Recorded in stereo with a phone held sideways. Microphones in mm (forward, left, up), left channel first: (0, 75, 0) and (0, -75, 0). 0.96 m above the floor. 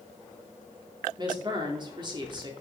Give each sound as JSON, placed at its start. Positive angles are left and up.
{"t": 1.2, "sound": "a woman speaking", "side_deg": -30, "distance_m": 2.5}